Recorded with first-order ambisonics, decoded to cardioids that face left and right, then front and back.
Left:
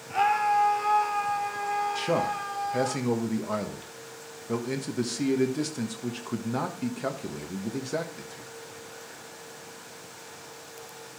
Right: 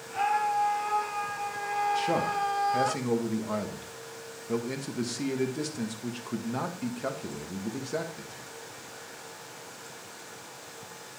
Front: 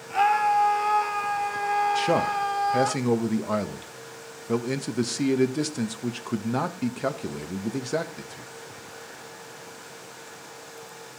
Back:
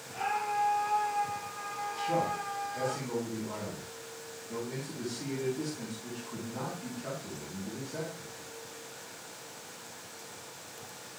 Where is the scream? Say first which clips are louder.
Left 4 dB, front 11 dB; 25° left, 2.5 m; by 3.0 s 30° right, 1.3 m.